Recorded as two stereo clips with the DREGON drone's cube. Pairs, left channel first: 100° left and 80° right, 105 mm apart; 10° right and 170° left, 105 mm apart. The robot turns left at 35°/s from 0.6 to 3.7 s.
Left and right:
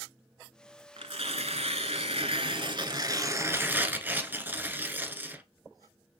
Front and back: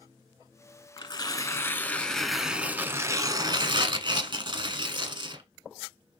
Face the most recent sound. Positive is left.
turn(degrees=-150)